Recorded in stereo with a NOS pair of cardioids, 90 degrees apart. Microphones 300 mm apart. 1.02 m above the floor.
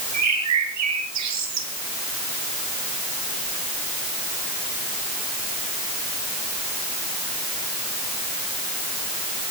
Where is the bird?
65° right, 4.5 m.